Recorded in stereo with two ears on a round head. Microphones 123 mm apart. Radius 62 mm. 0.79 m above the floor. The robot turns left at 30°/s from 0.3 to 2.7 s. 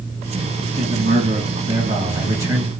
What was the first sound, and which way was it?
A man speaking, 105° right.